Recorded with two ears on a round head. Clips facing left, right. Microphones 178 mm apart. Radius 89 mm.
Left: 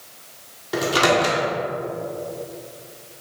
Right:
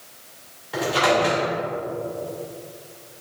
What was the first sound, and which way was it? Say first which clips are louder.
A microwave: left 1 dB; 55° left (ahead or behind).